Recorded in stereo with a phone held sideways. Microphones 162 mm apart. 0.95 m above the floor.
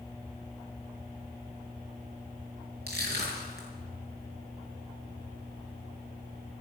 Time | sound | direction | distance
2.9 | crushing | 85° right | 5.5 m